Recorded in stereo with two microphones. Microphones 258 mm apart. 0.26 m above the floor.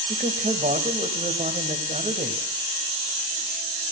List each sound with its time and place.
0.1 s a man speaking: 30° right (ahead or behind), 1.2 m